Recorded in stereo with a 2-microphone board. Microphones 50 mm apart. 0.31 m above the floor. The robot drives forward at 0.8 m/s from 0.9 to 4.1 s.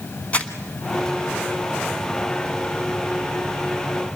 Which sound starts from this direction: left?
Crumpling, at 0.3 s.